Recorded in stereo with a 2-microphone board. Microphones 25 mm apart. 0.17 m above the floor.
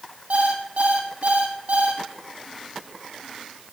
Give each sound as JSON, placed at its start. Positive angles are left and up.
{"t": 0.3, "sound": "an alarm clock", "side_deg": -70, "distance_m": 2.5}